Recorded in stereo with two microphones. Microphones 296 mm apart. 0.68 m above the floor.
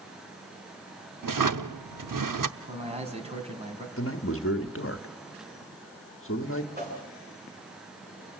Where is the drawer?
85° right, 0.7 m.